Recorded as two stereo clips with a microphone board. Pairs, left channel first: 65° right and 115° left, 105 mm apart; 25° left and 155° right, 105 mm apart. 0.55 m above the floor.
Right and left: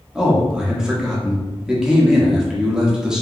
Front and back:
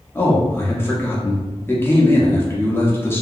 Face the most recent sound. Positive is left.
turn(degrees=40)